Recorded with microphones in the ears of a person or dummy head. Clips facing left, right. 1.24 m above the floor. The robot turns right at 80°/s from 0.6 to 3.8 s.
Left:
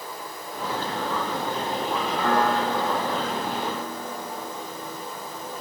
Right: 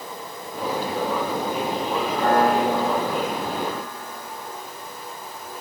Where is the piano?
65° right, 7.5 m; by 4.5 s 60° left, 7.5 m.